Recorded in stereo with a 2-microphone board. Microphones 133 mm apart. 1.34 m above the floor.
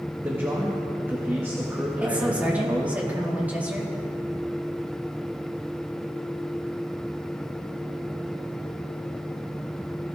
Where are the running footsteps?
I don't hear running footsteps.